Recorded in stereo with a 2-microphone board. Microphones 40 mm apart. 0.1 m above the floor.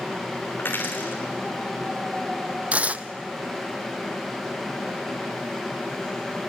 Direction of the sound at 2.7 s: 30° right (ahead or behind).